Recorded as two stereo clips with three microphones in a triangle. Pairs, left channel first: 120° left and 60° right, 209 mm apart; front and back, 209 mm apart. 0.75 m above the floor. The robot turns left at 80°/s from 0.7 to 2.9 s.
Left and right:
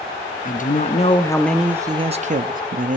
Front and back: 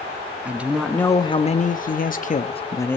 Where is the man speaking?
100° left, 0.5 m; by 3.0 s 75° right, 0.5 m.